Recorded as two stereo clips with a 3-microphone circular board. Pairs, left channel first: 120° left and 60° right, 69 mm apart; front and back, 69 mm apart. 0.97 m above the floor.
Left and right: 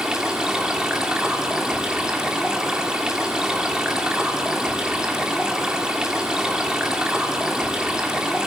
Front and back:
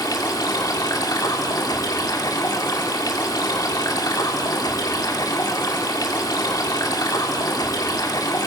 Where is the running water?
20° left, 2 m.